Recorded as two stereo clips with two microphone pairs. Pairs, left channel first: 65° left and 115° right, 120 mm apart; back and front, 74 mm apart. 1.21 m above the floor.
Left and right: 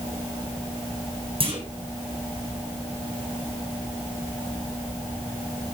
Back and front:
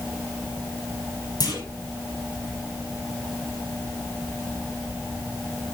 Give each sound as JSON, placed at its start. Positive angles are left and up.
{"t": 1.4, "sound": "a clunk", "azimuth_deg": -155, "distance_m": 4.5}